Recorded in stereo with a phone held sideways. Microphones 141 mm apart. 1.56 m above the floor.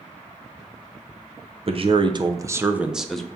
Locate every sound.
1.7 s a man speaking: 45° right (ahead or behind), 0.6 m; by 3.3 s 5° left (ahead or behind), 0.7 m